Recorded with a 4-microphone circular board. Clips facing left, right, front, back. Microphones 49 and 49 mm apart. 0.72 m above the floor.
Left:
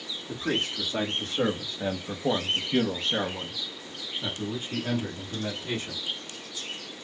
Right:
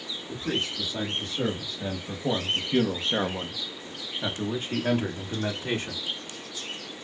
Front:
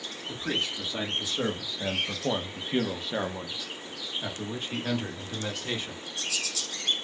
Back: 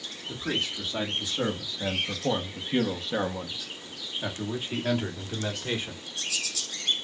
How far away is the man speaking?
About 1.6 m.